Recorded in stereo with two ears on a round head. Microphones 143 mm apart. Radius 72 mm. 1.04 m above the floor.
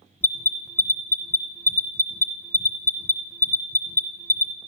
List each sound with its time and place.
0.2 s an alarm: 15° left (ahead or behind), 0.8 m